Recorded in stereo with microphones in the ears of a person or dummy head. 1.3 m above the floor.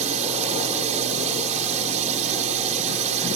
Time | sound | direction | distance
0.0 | a drone | 40° right (ahead or behind) | ?